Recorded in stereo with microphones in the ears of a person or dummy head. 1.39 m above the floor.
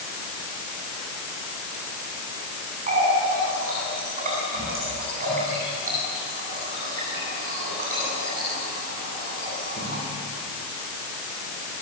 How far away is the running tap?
About 8.5 m.